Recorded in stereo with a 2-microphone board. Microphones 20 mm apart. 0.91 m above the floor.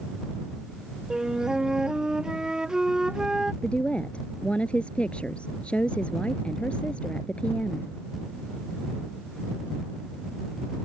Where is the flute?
35° right (ahead or behind).